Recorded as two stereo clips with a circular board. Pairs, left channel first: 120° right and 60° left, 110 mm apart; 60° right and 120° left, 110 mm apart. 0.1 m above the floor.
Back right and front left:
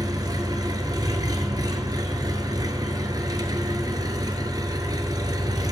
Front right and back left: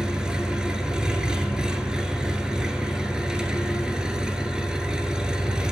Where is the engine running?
40° left, 0.8 m.